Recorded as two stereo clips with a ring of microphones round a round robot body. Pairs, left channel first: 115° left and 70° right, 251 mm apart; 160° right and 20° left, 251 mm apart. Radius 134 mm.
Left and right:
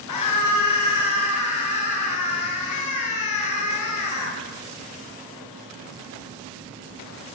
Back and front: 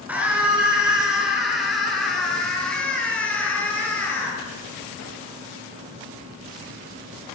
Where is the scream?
105° left, 7 m; by 4.4 s 120° left, 8 m.